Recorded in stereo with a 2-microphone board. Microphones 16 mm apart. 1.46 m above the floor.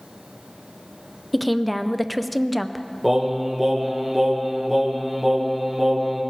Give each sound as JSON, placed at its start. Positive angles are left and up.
{"t": 1.3, "sound": "a woman speaking", "side_deg": 0, "distance_m": 0.6}
{"t": 3.0, "sound": "singing", "side_deg": -10, "distance_m": 1.8}